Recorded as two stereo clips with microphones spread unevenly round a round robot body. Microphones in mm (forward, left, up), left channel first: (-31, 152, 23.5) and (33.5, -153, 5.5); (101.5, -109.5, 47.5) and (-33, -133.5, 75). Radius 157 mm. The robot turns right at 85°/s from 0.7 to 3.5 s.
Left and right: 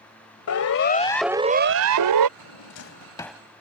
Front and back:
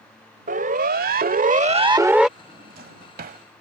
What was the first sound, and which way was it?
A siren, 145° left.